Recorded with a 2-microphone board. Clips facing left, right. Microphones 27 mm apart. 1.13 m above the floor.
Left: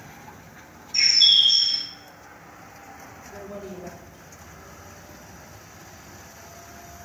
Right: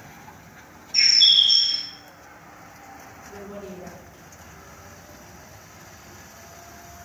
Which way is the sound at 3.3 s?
75° right (ahead or behind).